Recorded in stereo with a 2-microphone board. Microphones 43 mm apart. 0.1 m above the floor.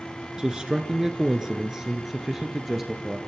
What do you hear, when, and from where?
0.4 s a man speaking: 20° right (ahead or behind), 1.5 m; by 3.2 s 10° right (ahead or behind), 2 m